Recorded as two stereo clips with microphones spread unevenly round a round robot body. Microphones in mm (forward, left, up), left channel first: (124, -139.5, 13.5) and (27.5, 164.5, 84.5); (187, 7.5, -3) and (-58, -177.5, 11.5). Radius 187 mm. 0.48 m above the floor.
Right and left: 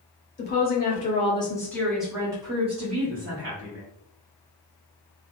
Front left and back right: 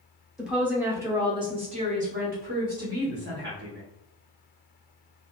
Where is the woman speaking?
55° right, 1.2 m; by 3.8 s 165° left, 1.3 m.